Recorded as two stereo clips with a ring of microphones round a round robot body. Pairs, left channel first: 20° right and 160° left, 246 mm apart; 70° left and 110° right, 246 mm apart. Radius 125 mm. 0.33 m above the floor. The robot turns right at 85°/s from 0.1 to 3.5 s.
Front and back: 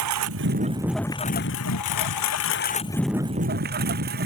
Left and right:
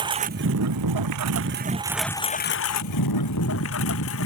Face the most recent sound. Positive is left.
turn(degrees=105)